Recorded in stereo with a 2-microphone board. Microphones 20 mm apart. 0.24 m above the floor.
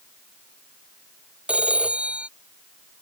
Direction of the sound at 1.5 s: 80° right.